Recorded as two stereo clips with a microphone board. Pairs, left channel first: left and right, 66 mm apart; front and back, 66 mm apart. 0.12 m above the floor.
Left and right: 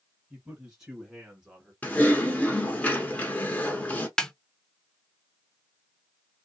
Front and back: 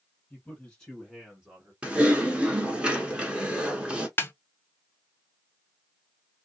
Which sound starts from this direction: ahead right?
A man speaking, at 0.3 s.